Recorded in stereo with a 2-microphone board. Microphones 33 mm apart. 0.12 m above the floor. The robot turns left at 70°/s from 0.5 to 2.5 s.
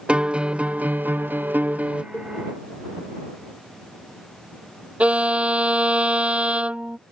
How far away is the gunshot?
No gunshot in this recording.